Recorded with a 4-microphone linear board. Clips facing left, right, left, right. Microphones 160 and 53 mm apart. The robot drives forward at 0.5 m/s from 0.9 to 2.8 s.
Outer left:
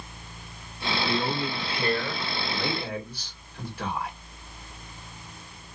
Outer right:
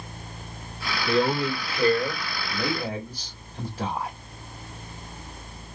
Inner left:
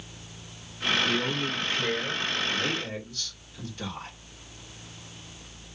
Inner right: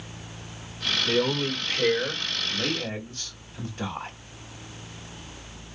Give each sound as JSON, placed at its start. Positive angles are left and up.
{"t": 1.1, "sound": "a man speaking", "side_deg": -45, "distance_m": 1.5}